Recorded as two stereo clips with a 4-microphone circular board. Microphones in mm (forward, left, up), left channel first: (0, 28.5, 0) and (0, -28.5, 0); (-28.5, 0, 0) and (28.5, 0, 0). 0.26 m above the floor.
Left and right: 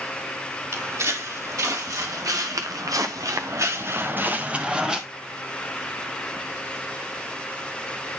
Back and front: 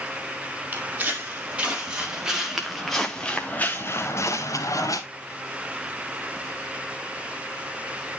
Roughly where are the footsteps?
Ahead right.